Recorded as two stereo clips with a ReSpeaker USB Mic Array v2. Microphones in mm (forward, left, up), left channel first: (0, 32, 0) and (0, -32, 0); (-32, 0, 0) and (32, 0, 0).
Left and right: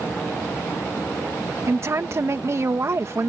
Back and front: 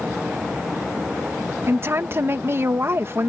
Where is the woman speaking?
50° right.